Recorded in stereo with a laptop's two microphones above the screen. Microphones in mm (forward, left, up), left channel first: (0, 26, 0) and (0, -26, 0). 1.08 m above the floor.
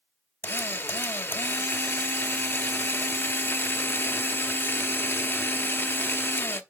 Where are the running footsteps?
I don't hear running footsteps.